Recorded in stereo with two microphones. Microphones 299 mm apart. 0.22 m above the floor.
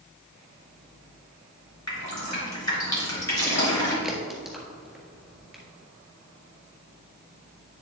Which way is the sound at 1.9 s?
60° left (ahead or behind).